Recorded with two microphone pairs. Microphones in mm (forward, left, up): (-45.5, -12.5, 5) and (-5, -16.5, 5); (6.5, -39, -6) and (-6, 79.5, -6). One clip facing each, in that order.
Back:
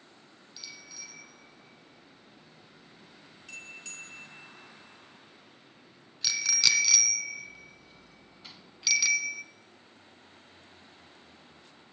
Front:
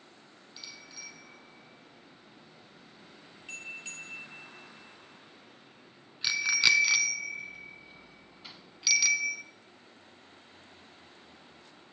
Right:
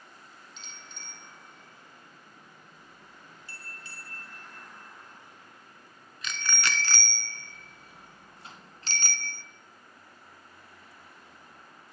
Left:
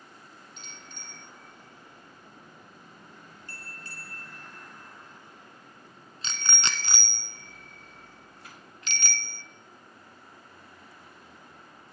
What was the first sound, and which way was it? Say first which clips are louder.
A bicycle bell: even, left 1 dB; 60° left.